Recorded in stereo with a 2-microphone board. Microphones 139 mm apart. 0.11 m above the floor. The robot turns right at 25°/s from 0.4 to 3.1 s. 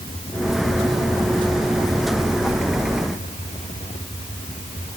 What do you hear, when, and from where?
Only background noise.